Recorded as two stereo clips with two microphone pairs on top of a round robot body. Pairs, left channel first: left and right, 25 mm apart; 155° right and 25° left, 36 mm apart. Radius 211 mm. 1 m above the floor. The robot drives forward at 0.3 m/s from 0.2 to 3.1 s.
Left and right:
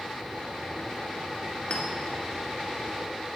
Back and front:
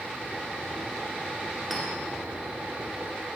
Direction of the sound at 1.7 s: 115° left.